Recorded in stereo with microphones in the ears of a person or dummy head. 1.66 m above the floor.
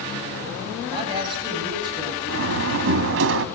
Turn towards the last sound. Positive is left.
turn(degrees=-70)  # may be behind; listen again after turning